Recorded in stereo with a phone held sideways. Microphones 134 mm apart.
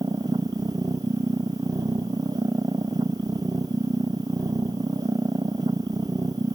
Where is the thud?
No thud in this recording.